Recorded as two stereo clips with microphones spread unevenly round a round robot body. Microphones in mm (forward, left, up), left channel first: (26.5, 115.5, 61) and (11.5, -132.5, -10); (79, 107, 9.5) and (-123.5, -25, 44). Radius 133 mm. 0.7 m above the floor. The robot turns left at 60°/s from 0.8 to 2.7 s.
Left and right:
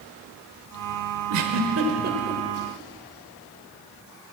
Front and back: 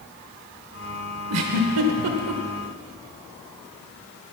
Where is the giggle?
105° right, 1.2 m; by 2.4 s 175° right, 1.2 m.